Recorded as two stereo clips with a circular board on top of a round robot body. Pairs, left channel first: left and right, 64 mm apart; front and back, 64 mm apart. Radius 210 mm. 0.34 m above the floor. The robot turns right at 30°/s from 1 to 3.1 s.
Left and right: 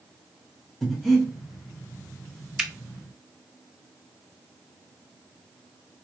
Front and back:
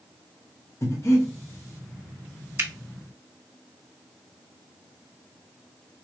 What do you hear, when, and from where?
0.8 s breathing: straight ahead, 1.5 m; by 1.3 s 10° left, 1.5 m
2.6 s a finger snap: 165° right, 1.0 m; by 2.7 s 160° right, 1.0 m